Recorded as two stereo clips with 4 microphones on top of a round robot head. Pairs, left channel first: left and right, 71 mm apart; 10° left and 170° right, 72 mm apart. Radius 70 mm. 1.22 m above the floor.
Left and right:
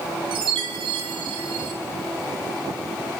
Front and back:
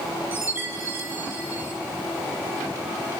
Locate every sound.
0.3 s a chime: 100° right, 3.5 m